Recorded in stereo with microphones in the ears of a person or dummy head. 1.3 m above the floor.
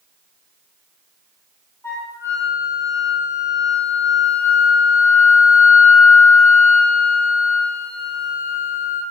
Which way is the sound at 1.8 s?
15° left (ahead or behind).